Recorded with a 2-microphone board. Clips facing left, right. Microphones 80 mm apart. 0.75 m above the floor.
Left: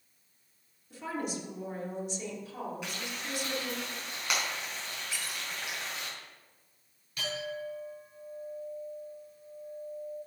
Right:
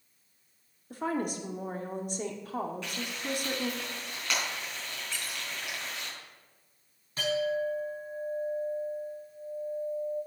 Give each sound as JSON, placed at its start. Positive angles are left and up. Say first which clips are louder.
{"t": 0.9, "sound": "a woman speaking", "louder": "right 4 dB", "side_deg": -45, "distance_m": 1.5}
{"t": 2.8, "sound": "frying", "louder": "right 3 dB", "side_deg": 10, "distance_m": 4.5}
{"t": 5.1, "sound": "a squeak", "louder": "even", "side_deg": 5, "distance_m": 1.8}
{"t": 7.2, "sound": "a clink", "louder": "right 8 dB", "side_deg": -35, "distance_m": 4.5}